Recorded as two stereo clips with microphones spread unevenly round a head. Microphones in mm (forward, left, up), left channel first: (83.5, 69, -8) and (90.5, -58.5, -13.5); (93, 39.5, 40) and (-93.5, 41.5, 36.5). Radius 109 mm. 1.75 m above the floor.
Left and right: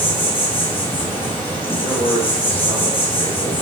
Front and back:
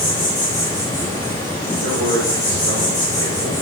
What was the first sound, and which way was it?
An insect, 45° left.